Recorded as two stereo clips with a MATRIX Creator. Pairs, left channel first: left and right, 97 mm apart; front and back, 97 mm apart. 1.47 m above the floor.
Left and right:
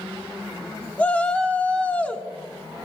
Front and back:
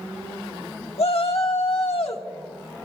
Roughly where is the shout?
Ahead.